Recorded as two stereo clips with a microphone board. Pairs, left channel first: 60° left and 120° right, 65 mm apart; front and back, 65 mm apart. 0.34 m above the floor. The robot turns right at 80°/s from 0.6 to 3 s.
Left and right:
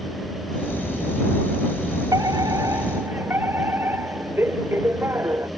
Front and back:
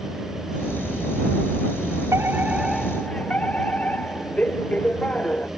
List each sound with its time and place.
2.1 s a fire alarm: 140° right; by 5.5 s 70° right